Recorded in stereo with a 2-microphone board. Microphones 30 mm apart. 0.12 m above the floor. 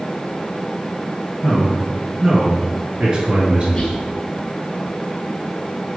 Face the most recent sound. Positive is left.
turn(degrees=25)  # may be behind; listen again after turning